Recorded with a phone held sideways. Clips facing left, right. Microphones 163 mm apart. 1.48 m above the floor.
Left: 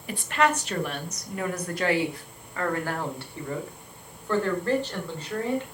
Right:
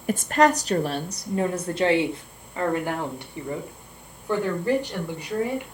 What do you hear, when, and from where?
0.1 s a woman speaking: 45° right (ahead or behind), 1.2 m; by 5.7 s 10° right (ahead or behind), 4.5 m